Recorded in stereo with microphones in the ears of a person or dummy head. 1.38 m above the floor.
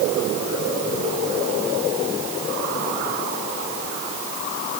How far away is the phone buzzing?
No phone buzzing in this recording.